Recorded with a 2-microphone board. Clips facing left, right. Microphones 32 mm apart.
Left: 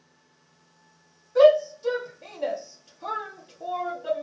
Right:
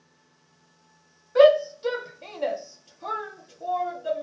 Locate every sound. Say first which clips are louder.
1.4 s a shout: even; 40° right (ahead or behind), 0.9 m; by 4.2 s 30° left (ahead or behind), 1.0 m